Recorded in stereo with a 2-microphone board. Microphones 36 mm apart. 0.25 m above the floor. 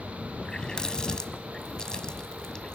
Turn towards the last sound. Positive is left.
turn(degrees=25)  # may be behind; listen again after turning